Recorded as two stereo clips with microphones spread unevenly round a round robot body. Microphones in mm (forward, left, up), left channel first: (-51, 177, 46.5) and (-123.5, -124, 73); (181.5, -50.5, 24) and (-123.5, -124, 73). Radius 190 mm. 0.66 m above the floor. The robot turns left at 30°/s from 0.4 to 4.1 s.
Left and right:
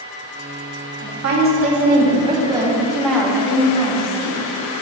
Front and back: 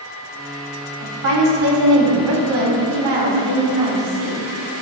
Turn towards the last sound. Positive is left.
turn(degrees=130)